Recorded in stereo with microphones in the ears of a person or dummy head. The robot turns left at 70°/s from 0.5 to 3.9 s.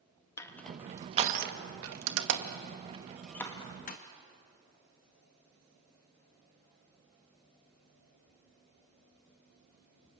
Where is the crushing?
15° left (ahead or behind), 1.8 m; by 4.0 s 40° left (ahead or behind), 1.8 m.